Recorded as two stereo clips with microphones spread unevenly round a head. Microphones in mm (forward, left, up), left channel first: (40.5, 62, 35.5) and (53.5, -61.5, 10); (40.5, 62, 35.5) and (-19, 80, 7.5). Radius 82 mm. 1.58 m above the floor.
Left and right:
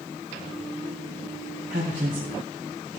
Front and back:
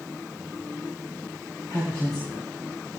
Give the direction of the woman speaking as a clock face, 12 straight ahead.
4 o'clock.